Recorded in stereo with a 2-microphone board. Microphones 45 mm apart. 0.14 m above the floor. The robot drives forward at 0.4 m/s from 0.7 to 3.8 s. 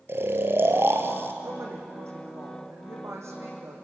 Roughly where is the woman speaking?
Right.